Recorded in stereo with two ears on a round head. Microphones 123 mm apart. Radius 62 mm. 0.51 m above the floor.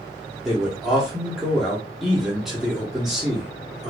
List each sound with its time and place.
0.5 s a man speaking: centre (ahead or behind), 0.7 m